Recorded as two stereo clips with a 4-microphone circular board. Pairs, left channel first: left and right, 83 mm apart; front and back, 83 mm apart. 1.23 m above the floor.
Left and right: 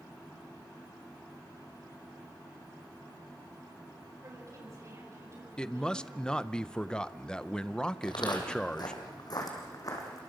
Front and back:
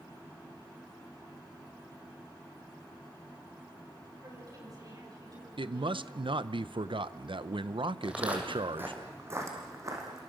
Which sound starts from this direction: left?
Footsteps, at 8.0 s.